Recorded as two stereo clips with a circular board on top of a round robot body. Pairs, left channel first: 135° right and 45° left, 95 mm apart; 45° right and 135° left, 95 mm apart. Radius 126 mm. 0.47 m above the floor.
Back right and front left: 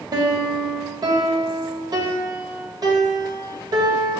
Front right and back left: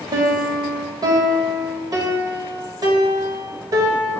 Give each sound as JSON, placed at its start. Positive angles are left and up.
{"t": 0.1, "sound": "a piano", "azimuth_deg": 90, "distance_m": 1.6}